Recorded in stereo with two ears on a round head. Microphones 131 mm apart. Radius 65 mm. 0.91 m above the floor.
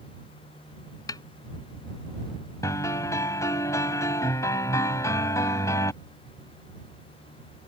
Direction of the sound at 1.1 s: 25° left (ahead or behind).